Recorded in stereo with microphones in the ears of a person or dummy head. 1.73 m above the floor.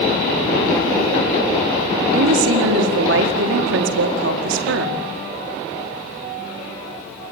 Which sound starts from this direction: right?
A woman speaking, at 2.1 s.